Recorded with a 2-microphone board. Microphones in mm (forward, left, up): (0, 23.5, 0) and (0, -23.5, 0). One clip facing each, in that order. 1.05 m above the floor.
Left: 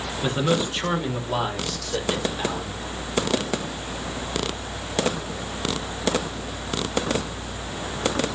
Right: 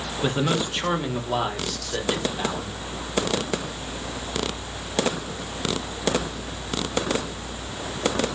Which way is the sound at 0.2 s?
10° right (ahead or behind).